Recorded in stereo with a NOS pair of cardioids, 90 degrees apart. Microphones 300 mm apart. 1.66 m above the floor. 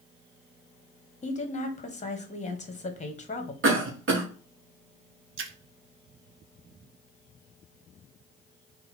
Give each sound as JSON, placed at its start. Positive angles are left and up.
{"t": 1.2, "sound": "a woman speaking", "azimuth_deg": 25, "distance_m": 1.3}
{"t": 3.6, "sound": "a cough", "azimuth_deg": -40, "distance_m": 1.1}
{"t": 5.4, "sound": "a splash", "azimuth_deg": -45, "distance_m": 0.8}